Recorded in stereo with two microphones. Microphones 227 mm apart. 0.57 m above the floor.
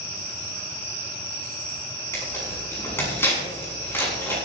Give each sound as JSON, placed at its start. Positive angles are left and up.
{"t": 2.1, "sound": "tearing paper", "side_deg": 10, "distance_m": 6.5}